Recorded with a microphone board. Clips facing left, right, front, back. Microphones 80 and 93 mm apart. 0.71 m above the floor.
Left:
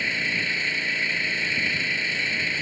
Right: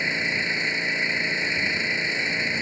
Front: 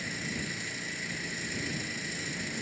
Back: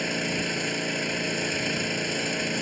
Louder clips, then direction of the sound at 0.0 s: Right 1 dB, back 9 dB; 160° right.